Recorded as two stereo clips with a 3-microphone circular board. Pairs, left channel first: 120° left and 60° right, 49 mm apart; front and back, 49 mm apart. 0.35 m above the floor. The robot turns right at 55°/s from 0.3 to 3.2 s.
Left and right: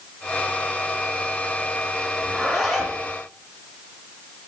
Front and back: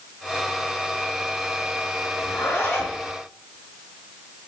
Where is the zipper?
5° left, 3.5 m; by 3.0 s 50° left, 3.5 m.